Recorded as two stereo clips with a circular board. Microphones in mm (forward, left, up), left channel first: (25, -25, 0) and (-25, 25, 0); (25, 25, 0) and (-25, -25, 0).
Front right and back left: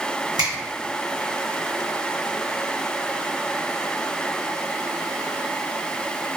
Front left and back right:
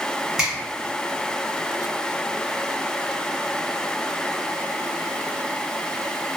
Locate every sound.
0.4 s a finger snap: 140° left, 1.3 m